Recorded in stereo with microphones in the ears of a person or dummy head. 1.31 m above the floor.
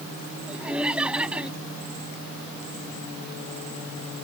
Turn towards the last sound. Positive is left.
turn(degrees=-5)  # may be behind; listen again after turning